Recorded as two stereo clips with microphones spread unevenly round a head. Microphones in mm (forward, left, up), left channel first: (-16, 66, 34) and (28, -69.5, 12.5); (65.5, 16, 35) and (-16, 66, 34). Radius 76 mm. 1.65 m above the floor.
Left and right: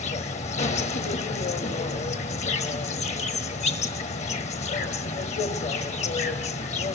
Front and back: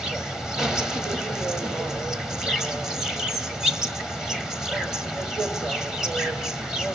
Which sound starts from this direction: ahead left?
An insect, at 0.0 s.